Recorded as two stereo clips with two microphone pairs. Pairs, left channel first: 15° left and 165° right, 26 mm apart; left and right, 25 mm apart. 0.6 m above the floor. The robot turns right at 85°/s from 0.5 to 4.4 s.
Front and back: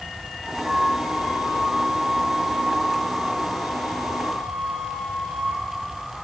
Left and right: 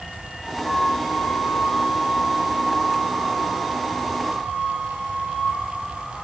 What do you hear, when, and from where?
0.6 s a flute: 125° left, 9.5 m; by 5.6 s 85° left, 9.5 m